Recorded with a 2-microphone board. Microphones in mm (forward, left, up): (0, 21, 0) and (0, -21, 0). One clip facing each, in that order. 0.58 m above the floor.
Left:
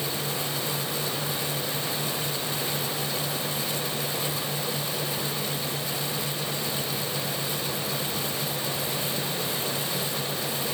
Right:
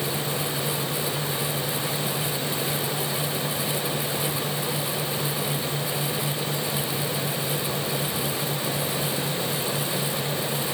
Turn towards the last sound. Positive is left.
No sound to turn to.